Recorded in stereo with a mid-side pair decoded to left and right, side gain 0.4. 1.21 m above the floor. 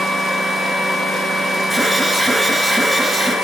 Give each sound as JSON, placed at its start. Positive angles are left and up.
{"t": 1.7, "sound": "an alarm", "azimuth_deg": -5, "distance_m": 7.0}